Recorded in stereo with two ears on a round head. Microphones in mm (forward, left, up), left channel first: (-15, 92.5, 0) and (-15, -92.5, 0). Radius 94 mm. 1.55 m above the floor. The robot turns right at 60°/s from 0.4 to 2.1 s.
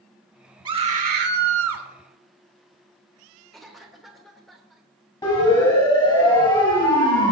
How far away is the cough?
About 3 m.